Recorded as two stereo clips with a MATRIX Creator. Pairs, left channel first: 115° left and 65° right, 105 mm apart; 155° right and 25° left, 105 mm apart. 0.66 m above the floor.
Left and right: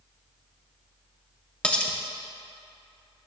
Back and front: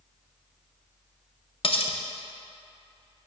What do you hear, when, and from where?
1.6 s cutlery clinking: 170° right, 0.6 m